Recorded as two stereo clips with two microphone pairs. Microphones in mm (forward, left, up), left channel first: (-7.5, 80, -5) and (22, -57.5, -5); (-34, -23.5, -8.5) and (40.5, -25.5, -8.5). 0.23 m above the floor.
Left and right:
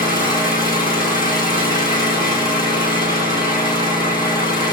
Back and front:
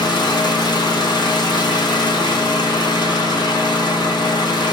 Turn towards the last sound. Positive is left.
turn(degrees=165)